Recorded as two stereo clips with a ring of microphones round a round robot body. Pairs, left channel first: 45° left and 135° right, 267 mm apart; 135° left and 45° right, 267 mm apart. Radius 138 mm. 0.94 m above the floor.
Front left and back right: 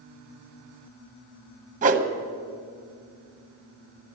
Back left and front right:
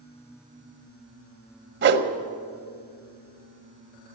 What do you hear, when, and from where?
1.8 s a whoosh: 80° right, 1.1 m